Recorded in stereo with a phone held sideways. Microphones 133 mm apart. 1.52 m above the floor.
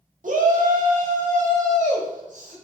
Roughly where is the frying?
I don't hear frying.